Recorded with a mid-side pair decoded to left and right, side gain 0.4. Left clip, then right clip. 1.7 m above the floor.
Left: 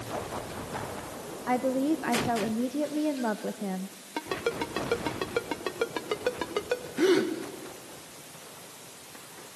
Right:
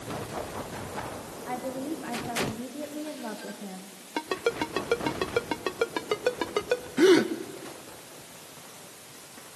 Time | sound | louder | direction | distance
1.5 | a woman speaking | left 7 dB | 60° left | 1.7 m
4.2 | a ringtone | right 2 dB | 25° right | 2.0 m
7.0 | a gasp | right 4 dB | 40° right | 2 m